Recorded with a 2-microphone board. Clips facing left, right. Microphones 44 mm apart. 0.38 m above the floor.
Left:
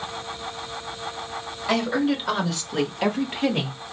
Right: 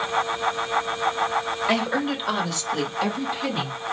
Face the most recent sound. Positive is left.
turn(degrees=55)  # may be behind; listen again after turning